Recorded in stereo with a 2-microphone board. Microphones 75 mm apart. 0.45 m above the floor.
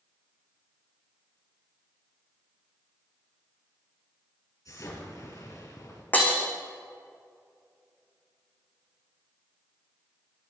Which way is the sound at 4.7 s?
55° left (ahead or behind).